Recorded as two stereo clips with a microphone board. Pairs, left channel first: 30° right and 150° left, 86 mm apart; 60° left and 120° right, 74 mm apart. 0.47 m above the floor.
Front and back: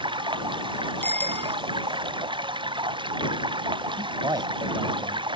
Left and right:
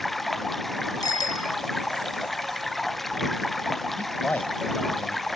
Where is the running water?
150° left.